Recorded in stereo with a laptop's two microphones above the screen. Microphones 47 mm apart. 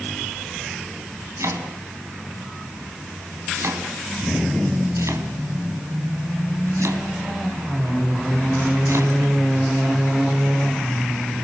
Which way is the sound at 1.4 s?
80° right.